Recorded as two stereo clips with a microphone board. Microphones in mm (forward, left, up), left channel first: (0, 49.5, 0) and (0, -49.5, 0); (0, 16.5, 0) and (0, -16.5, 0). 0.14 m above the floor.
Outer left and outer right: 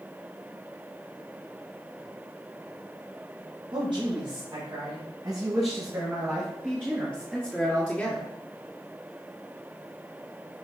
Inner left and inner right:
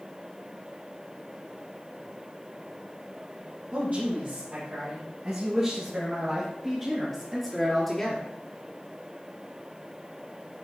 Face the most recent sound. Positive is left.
turn(degrees=10)  # may be behind; listen again after turning